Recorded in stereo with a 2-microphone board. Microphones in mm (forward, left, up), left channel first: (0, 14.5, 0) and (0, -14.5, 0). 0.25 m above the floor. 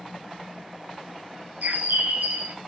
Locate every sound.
1.6 s a bird: 65° right (ahead or behind), 0.7 m